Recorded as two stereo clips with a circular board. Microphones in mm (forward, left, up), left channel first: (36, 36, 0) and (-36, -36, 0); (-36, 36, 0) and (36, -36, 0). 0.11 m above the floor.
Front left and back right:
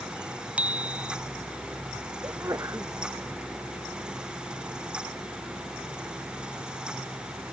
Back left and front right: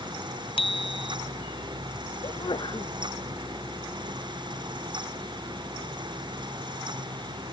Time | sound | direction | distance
0.6 | a bicycle bell | 150° left | ?
2.2 | a sneeze | 170° left | ?